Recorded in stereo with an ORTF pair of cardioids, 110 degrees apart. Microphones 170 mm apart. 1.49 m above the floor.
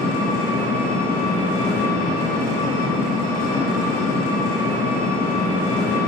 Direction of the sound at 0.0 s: 65° left.